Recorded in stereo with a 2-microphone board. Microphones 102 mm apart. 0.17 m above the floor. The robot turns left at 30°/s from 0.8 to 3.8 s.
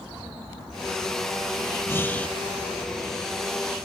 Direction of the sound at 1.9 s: 25° left (ahead or behind).